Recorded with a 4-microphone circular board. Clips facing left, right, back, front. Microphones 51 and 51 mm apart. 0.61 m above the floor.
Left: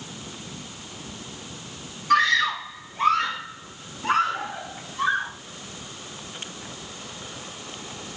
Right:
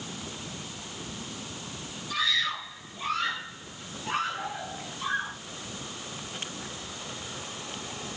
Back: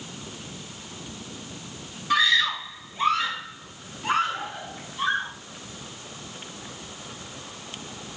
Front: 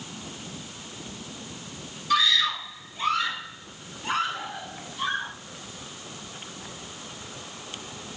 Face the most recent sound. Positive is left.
turn(degrees=120)